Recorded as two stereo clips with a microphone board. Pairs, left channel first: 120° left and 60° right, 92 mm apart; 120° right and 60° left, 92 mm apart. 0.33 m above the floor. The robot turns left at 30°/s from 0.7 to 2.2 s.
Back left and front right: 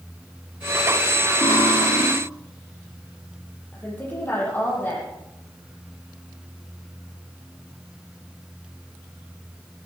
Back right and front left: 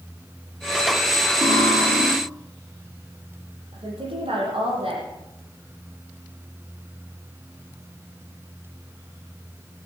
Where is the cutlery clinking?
100° left, 5 m; by 2.1 s 80° left, 5 m.